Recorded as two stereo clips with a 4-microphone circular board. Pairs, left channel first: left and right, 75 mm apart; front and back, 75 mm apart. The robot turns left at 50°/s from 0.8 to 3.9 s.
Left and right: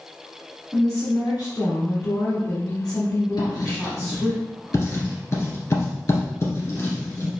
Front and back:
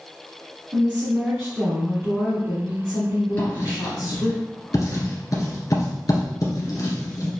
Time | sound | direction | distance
0.7 | a woman speaking | 150° left | 1.8 m
3.4 | writing | 60° left | 2.0 m